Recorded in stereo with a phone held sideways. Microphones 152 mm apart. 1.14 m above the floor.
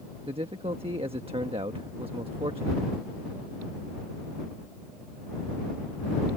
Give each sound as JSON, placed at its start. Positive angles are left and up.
{"t": 0.3, "sound": "a man speaking", "side_deg": -35}